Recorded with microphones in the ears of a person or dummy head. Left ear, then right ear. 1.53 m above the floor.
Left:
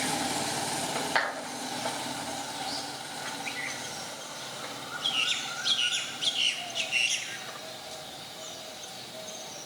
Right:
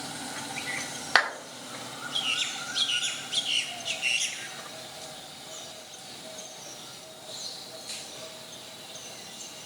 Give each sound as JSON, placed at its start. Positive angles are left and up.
{"t": 1.1, "sound": "a clap", "side_deg": -40, "distance_m": 2.0}